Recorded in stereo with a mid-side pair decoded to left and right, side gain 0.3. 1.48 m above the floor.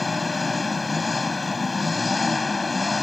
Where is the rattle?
I don't hear a rattle.